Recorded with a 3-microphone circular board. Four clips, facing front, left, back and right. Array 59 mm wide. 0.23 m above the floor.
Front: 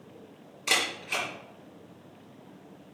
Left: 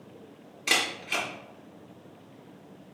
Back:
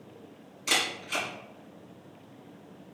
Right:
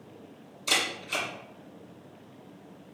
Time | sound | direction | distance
0.7 | a camera shutter | 65° left | 4 m